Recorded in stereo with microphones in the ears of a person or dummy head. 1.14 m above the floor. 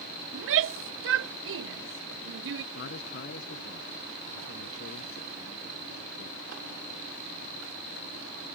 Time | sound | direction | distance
0.3 | a shout | 60° right (ahead or behind) | ?
2.7 | a man speaking | 55° left (ahead or behind) | ?